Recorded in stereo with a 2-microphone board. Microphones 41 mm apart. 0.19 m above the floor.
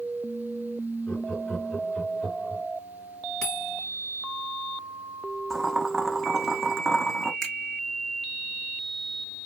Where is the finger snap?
10° left (ahead or behind), 2.0 m.